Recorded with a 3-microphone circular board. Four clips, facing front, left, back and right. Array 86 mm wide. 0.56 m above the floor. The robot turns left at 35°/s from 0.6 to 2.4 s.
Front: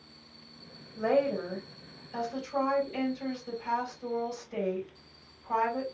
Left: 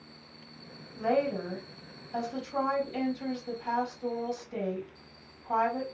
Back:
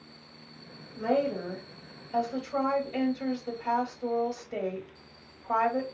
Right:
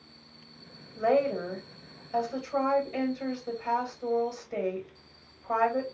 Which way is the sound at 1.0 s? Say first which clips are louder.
Right 3 dB, front 1 dB; 85° right.